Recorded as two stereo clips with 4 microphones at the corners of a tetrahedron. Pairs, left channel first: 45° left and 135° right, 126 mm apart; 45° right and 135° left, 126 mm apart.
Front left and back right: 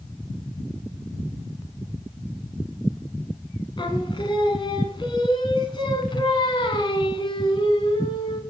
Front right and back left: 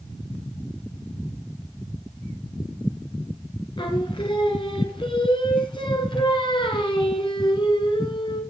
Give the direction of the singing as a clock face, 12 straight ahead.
12 o'clock.